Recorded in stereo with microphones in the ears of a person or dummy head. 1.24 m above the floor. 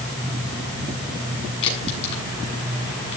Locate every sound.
1.6 s a crack: 30° left (ahead or behind), 7.5 m